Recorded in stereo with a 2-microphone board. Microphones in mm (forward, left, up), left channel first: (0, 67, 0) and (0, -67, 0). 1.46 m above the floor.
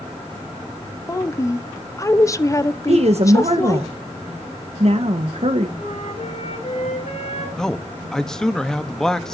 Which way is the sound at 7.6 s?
5° left (ahead or behind).